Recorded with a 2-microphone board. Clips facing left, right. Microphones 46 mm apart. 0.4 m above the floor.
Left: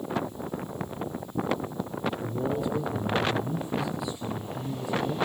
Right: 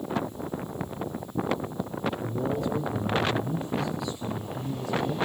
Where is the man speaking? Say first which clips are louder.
Even; 10° left (ahead or behind), 4.5 m.